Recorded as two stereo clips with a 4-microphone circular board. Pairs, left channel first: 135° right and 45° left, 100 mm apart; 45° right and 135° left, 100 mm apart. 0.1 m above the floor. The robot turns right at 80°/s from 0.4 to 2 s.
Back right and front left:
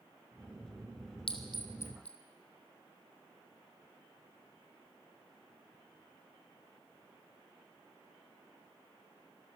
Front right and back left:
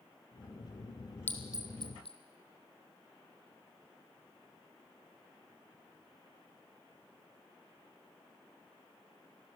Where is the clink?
115° right, 2.5 m; by 2.2 s 60° right, 2.5 m.